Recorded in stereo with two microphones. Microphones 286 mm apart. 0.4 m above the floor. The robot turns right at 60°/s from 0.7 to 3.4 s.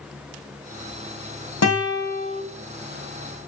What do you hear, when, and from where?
1.6 s a guitar: 120° left, 0.9 m; by 2.4 s 170° left, 0.9 m